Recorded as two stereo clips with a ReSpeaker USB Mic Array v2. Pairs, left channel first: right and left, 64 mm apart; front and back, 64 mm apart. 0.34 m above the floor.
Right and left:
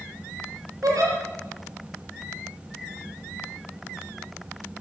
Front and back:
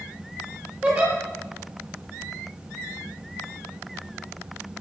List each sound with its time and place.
0.8 s a giggle: 110° left, 7.5 m